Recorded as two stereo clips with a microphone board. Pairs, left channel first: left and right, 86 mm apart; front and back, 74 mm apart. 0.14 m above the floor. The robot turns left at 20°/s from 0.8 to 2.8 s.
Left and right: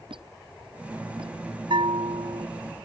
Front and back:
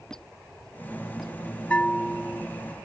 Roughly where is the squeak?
Right.